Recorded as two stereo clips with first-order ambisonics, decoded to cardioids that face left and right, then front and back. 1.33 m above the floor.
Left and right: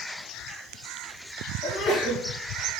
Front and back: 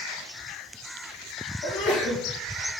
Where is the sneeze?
40° left, 1.8 m.